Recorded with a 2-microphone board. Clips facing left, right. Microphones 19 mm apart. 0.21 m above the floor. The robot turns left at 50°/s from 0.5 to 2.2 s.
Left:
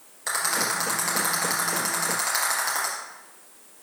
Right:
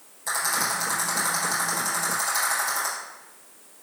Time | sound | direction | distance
0.3 | a rattle | 30° left (ahead or behind) | 3 m